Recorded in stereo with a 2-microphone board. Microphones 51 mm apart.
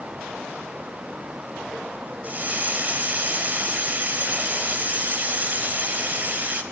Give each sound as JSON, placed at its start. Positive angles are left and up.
{"t": 2.2, "sound": "a hiss", "side_deg": -35, "distance_m": 0.9}